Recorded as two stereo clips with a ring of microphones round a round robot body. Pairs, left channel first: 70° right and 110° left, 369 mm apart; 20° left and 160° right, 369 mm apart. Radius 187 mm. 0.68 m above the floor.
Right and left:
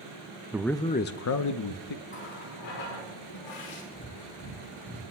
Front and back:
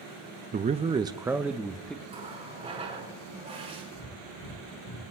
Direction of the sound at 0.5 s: 175° right.